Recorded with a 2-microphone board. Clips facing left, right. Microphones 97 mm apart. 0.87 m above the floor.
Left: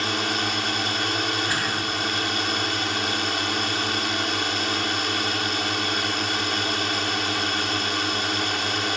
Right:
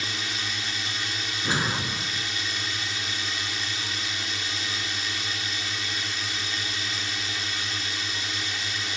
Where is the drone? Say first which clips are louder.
Left 8 dB; 65° left (ahead or behind).